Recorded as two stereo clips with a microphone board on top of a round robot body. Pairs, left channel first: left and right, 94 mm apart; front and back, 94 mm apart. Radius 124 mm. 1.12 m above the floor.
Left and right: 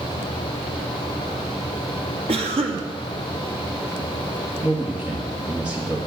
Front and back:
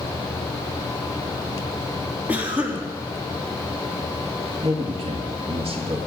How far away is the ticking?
I don't hear ticking.